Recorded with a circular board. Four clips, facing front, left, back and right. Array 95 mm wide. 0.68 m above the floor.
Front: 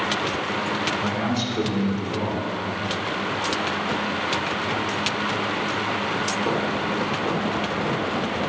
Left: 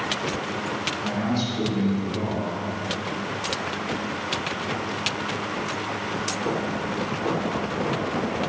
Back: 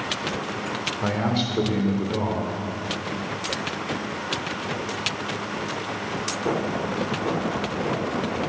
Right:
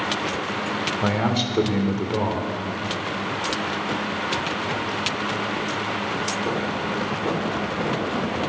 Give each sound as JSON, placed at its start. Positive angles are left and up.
{"t": 1.0, "sound": "a man speaking", "azimuth_deg": -105, "distance_m": 1.6}